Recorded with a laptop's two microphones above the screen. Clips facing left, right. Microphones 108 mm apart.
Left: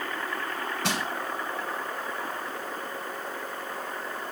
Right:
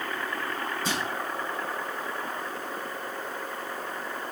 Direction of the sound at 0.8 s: 75° left (ahead or behind).